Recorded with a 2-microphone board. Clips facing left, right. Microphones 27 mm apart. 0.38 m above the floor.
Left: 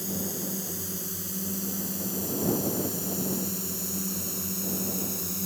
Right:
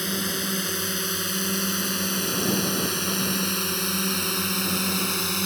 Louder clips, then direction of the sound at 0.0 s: Right 6 dB; 65° right (ahead or behind).